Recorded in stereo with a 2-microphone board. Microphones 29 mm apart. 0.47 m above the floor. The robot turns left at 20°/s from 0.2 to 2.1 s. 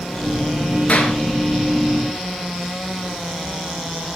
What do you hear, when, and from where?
0.9 s a clap: 45° left (ahead or behind), 4.5 m; by 1.1 s 50° left (ahead or behind), 4.5 m